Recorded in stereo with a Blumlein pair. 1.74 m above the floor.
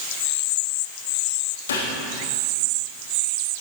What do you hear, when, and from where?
1.7 s a gunshot: 65° left, 2.5 m